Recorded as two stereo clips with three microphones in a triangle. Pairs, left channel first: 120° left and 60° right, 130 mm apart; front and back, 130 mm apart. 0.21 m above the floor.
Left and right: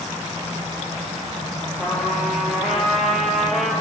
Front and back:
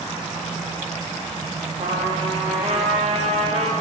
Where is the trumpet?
150° right, 1.7 m.